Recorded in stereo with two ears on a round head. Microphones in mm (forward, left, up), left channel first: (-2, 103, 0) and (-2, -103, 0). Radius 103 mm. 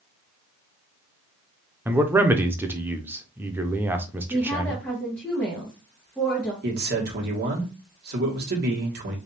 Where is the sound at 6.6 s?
45° right (ahead or behind), 1.5 m.